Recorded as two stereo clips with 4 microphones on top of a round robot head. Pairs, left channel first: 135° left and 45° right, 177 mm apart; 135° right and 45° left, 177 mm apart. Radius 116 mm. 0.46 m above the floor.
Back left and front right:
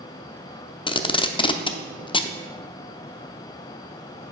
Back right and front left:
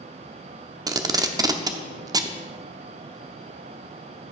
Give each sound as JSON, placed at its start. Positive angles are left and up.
{"t": 0.9, "sound": "tape being pulled", "azimuth_deg": 95, "distance_m": 0.8}